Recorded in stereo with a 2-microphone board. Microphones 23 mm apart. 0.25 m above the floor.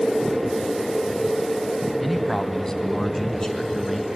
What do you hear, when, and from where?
2.0 s a man speaking: 10° left (ahead or behind), 1.1 m; by 4.1 s 30° left (ahead or behind), 3 m